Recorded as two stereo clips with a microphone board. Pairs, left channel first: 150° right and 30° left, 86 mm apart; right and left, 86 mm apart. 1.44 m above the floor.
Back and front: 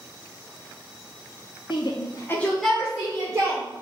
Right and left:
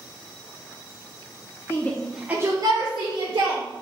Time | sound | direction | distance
1.7 | a shout | 150° right | 0.8 m